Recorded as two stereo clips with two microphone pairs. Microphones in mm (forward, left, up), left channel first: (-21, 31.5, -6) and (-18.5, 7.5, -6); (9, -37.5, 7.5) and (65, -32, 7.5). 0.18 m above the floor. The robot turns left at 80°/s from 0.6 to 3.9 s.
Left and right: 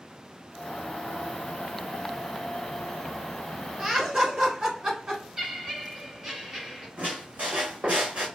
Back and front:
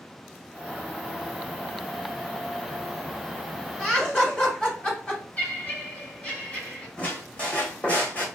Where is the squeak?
105° right, 1.4 m.